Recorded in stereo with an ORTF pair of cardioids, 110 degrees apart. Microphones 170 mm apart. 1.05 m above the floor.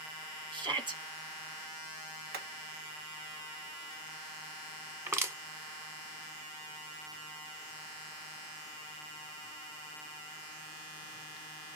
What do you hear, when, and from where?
0.5 s a shout: 30° right, 1.6 m
2.3 s hammering: 70° right, 2.0 m
5.1 s crushing: 15° right, 1.6 m